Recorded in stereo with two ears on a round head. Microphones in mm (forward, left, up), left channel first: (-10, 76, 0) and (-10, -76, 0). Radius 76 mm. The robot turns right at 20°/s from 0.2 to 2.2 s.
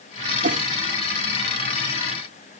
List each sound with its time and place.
0.4 s a whoosh: 50° right (ahead or behind); by 0.7 s 45° right (ahead or behind)